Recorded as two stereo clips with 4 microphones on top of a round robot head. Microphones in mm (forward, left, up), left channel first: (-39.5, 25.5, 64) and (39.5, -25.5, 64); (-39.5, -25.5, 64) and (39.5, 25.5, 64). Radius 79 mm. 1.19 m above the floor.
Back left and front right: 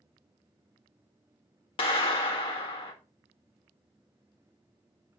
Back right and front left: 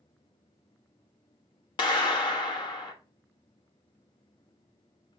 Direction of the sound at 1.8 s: 175° left.